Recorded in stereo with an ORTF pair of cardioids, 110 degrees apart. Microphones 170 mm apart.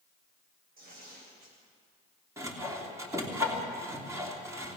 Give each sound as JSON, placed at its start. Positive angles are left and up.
{"t": 0.8, "sound": "tearing paper", "azimuth_deg": -65, "distance_m": 8.0}
{"t": 2.4, "sound": "sawing", "azimuth_deg": -20, "distance_m": 3.0}